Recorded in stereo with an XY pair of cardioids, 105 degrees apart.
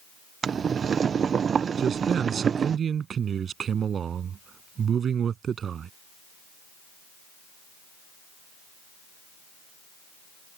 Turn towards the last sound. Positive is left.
turn(degrees=-50)